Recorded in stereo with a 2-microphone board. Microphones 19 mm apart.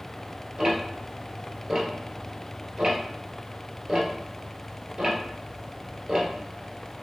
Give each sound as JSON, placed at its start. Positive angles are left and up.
{"t": 0.6, "sound": "ticking", "side_deg": -25, "distance_m": 1.3}